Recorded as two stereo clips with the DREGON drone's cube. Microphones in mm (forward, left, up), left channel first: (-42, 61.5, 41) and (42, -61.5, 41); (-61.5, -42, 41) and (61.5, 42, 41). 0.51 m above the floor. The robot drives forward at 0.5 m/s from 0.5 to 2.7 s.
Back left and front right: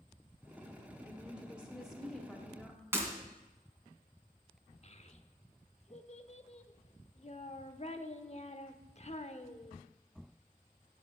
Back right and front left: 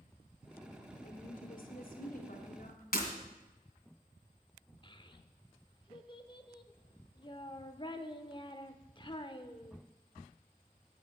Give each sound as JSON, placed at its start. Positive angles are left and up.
{"t": 1.0, "sound": "a woman speaking", "azimuth_deg": -130, "distance_m": 1.6}
{"t": 2.9, "sound": "breaking glass", "azimuth_deg": -130, "distance_m": 2.0}
{"t": 4.8, "sound": "a child speaking", "azimuth_deg": 160, "distance_m": 0.9}